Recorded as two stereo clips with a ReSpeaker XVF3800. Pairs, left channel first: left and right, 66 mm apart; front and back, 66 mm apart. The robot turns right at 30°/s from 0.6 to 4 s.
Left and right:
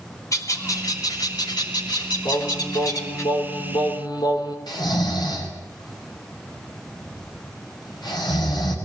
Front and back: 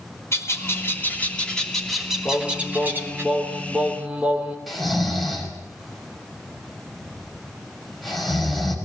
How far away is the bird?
About 3 m.